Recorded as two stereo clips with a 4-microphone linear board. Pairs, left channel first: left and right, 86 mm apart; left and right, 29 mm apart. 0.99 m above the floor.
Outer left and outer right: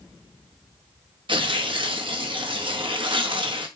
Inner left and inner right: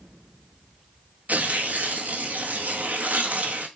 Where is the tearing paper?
70° right (ahead or behind), 1.4 m.